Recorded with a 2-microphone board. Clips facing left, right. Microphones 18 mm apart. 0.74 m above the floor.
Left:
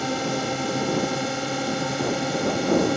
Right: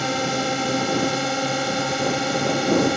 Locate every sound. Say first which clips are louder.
0.0 s a drone: right 3 dB; 20° right (ahead or behind)